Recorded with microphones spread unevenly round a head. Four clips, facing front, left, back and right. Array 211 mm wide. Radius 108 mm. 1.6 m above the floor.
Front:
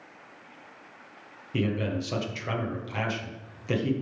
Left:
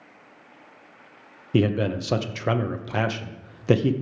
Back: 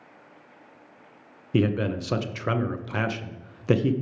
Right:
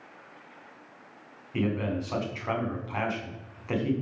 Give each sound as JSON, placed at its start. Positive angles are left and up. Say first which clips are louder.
{"t": 1.5, "sound": "a man speaking", "louder": "left 6 dB, back 4 dB", "azimuth_deg": 115, "distance_m": 1.0}